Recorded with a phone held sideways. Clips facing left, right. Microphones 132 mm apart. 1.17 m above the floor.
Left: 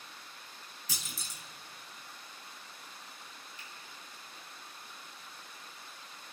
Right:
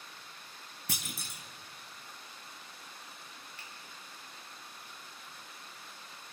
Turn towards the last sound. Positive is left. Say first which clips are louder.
# even
turn(degrees=-60)  # may be behind; listen again after turning